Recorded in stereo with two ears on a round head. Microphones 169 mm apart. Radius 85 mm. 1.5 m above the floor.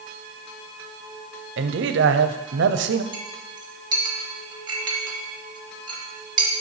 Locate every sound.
1.6 s a man speaking: 70° right (ahead or behind), 0.6 m
3.1 s a clink: 25° right (ahead or behind), 1.4 m